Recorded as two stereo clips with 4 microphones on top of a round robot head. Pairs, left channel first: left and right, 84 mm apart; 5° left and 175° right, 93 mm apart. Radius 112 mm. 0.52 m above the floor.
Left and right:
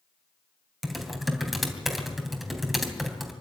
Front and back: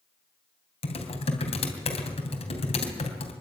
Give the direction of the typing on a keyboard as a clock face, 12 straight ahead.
12 o'clock.